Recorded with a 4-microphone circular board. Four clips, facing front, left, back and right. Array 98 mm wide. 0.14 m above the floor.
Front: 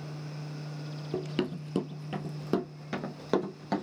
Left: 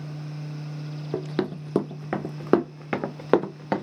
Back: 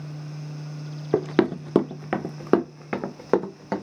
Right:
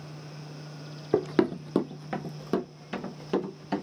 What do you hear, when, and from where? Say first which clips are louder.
1.1 s running footsteps: right 4 dB, back 11 dB; 160° right, 0.6 m; by 3.8 s 110° left, 1.2 m